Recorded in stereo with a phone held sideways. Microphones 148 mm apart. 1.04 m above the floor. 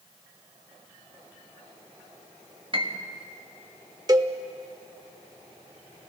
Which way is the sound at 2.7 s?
40° right (ahead or behind).